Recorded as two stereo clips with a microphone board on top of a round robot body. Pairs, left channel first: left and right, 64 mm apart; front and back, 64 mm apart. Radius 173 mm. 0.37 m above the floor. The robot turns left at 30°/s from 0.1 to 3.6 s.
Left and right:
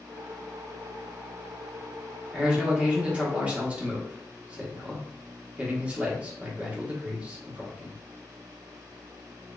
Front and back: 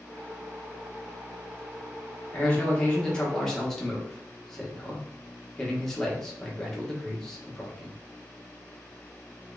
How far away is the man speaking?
About 1.3 m.